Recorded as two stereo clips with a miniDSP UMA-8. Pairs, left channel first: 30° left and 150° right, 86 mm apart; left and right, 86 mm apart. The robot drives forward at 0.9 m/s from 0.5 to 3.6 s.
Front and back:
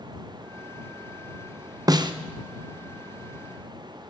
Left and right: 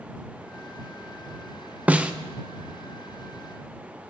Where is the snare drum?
155° right, 0.5 m; by 2.1 s 165° right, 0.7 m.